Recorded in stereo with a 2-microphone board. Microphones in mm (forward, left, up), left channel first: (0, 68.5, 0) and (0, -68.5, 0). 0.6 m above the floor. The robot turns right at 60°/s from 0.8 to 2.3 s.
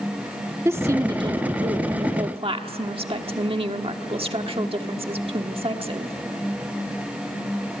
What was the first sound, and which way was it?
A woman speaking, 155° right.